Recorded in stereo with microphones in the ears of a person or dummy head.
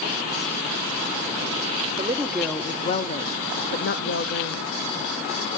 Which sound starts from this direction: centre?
A woman speaking, at 2.0 s.